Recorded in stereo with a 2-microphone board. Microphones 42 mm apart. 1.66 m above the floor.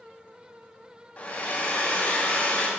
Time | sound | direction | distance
1.2 | a hair dryer | 35° left (ahead or behind) | 1.2 m